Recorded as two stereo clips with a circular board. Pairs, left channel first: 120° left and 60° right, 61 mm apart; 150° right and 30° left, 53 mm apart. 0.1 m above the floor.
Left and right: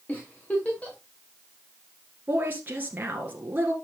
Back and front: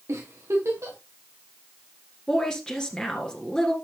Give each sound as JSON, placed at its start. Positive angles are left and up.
{"t": 0.1, "sound": "a giggle", "azimuth_deg": 55, "distance_m": 4.0}
{"t": 2.3, "sound": "a woman speaking", "azimuth_deg": -90, "distance_m": 1.8}